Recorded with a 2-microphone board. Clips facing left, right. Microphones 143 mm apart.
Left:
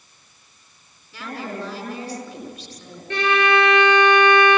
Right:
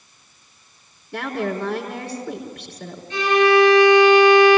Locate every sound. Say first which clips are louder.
1.1 s a woman speaking: right 6 dB; 65° right (ahead or behind), 4.5 m
3.1 s a violin: right 4 dB; 65° left (ahead or behind), 7 m